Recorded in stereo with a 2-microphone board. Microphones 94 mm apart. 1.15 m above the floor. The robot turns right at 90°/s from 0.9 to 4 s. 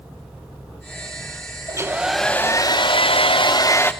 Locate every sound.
1.7 s a hair dryer: 45° right, 0.9 m; by 3.9 s 160° left, 0.9 m